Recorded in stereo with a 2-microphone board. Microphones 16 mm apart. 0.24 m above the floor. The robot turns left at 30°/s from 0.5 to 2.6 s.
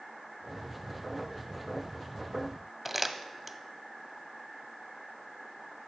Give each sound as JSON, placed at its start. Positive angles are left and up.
{"t": 2.9, "sound": "crumpling", "side_deg": -10, "distance_m": 0.5}